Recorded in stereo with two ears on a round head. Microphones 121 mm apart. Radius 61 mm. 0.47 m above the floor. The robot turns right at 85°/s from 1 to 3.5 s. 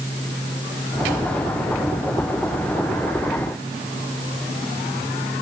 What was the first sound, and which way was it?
Only background noise.